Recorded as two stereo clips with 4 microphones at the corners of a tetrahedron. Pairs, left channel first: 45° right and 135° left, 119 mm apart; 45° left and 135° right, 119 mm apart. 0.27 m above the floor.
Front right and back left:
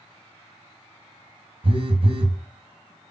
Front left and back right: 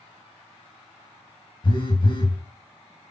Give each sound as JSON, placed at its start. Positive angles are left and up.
{"t": 1.6, "sound": "a phone buzzing", "azimuth_deg": 95, "distance_m": 0.8}